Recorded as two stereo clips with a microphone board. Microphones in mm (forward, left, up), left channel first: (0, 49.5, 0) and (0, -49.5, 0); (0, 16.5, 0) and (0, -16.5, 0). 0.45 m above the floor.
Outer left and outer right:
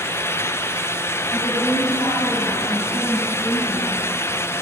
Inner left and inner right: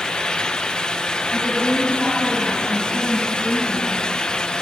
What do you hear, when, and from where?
1.3 s a woman speaking: 40° left (ahead or behind), 8.5 m; by 4.5 s 45° left (ahead or behind), 10.5 m